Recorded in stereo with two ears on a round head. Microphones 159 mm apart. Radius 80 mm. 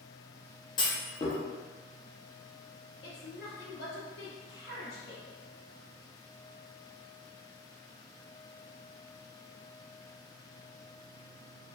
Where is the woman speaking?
60° left (ahead or behind), 1.1 m.